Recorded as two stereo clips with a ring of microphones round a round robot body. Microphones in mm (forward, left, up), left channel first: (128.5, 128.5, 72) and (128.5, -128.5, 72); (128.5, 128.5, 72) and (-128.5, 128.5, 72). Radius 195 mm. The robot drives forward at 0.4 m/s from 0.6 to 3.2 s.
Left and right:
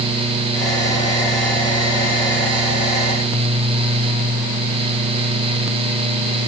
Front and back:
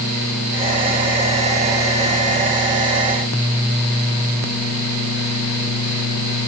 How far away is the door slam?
I don't hear a door slam.